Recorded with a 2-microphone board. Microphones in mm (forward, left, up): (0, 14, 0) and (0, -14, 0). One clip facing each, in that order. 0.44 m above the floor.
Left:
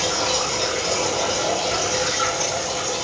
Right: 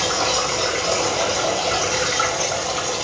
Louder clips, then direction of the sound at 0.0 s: Right 2 dB; 55° right (ahead or behind).